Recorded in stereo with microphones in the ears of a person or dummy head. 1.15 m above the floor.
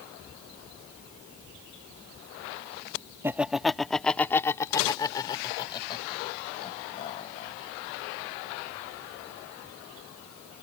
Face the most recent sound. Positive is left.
turn(degrees=35)  # may be behind; listen again after turning